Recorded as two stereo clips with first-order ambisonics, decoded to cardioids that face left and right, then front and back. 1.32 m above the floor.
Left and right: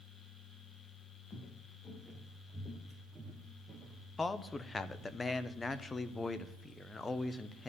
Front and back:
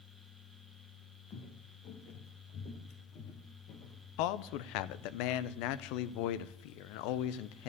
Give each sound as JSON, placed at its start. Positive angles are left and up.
{"t": 1.3, "sound": "footsteps", "azimuth_deg": 35, "distance_m": 1.6}
{"t": 4.2, "sound": "a man speaking", "azimuth_deg": 15, "distance_m": 0.5}